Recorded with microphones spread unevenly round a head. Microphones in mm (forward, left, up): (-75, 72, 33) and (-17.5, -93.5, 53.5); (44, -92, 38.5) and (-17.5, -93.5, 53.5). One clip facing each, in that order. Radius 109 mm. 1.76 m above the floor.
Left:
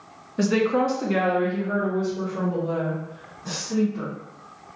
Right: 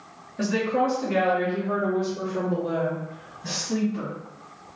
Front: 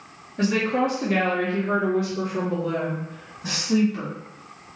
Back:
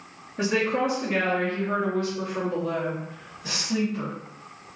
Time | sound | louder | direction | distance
0.4 | a woman speaking | left 3 dB, front 2 dB | 95° left | 0.8 m